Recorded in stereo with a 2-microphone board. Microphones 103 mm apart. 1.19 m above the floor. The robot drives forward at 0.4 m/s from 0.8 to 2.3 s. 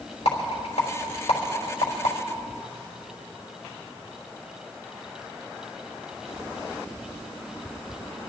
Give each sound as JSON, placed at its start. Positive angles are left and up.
{"t": 0.2, "sound": "a rattle", "side_deg": 85, "distance_m": 3.5}